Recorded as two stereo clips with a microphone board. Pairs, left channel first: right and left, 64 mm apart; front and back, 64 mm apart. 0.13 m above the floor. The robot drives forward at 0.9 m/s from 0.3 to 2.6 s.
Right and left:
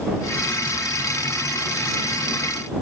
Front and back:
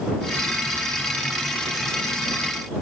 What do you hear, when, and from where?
Only background noise.